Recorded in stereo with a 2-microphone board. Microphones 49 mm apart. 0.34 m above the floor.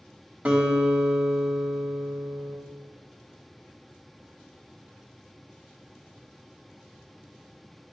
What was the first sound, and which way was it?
A guitar, 30° right (ahead or behind).